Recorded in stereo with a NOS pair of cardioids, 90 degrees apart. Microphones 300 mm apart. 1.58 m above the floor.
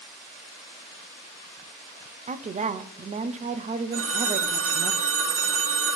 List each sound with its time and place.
2.3 s a woman speaking: 25° right, 0.6 m
3.9 s a phone ringing: 55° right, 2 m